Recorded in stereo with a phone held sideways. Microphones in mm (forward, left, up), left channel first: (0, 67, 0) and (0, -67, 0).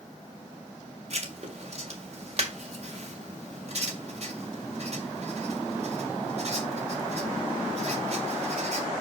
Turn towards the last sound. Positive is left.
turn(degrees=-50)  # may be behind; listen again after turning